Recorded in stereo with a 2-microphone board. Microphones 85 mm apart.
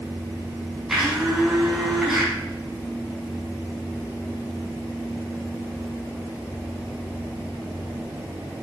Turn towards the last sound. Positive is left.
turn(degrees=-5)  # may be behind; listen again after turning